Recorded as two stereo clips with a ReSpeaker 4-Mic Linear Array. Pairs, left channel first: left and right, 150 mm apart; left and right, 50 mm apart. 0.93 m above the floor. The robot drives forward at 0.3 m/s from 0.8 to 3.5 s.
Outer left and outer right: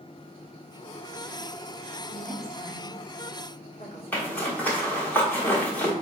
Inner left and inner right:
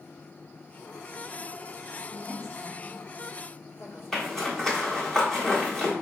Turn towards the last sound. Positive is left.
turn(degrees=10)  # may be behind; listen again after turning